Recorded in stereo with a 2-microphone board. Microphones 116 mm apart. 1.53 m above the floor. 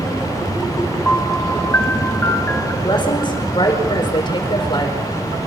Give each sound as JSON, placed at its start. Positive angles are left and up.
{"t": 1.1, "sound": "a piano", "side_deg": 20, "distance_m": 2.0}
{"t": 2.8, "sound": "a woman speaking", "side_deg": 40, "distance_m": 5.0}